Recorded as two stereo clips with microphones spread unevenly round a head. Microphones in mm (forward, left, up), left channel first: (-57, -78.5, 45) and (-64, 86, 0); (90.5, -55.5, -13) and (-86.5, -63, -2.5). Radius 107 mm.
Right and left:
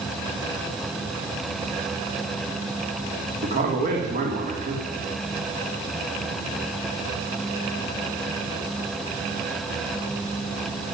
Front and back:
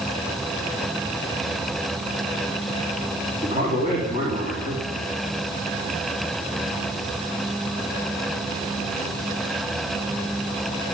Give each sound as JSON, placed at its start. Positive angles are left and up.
{"t": 3.4, "sound": "a man speaking", "azimuth_deg": 115, "distance_m": 3.0}